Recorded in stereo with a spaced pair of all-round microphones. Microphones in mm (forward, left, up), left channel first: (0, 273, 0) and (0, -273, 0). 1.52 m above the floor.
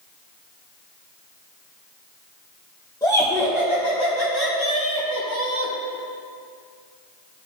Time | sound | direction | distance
3.0 | laughter | 5° left (ahead or behind) | 1.4 m